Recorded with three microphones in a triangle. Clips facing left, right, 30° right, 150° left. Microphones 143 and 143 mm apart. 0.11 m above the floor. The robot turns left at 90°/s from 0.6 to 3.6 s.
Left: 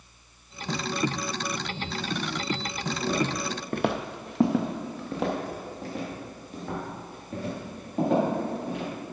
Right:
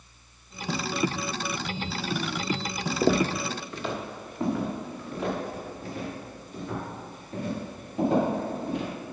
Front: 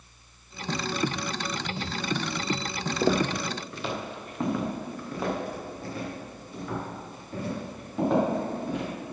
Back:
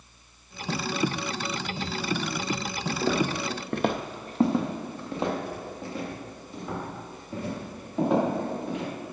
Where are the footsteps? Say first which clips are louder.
Right 5 dB, front 2 dB; 95° right, 0.9 m; by 8.9 s 75° left, 8.5 m.